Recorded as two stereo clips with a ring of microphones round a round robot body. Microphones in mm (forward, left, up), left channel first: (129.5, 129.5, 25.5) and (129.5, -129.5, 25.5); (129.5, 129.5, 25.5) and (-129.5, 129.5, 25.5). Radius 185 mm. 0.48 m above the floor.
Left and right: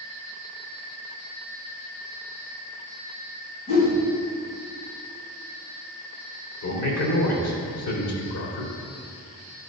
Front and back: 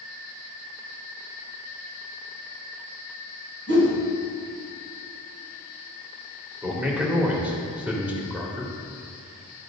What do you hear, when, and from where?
3.7 s a whoosh: 145° left, 2 m
6.6 s a man speaking: 95° left, 2 m